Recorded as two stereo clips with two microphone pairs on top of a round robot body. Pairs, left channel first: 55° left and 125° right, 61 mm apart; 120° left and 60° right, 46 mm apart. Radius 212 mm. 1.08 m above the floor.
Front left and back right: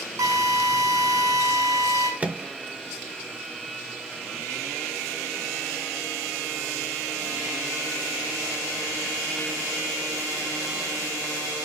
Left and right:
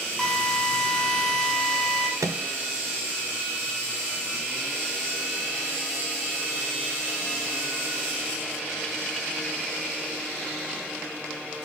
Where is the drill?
150° right, 5 m.